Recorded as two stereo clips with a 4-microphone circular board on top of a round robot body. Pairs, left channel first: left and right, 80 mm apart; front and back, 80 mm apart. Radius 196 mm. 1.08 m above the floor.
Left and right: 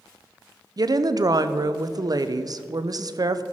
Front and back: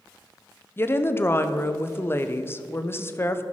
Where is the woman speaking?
55° right, 0.8 m.